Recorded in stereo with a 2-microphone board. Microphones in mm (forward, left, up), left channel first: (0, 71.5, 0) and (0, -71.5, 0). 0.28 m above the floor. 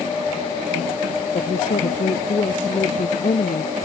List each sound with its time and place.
1.3 s a woman speaking: 60° left (ahead or behind)